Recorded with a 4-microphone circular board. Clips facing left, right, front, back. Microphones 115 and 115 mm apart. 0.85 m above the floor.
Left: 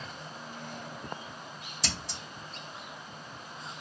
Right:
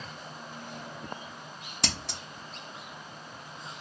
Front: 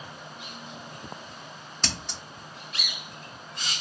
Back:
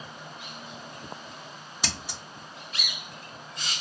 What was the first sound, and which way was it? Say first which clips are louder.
Scissors: right 3 dB, front 1 dB; 100° right.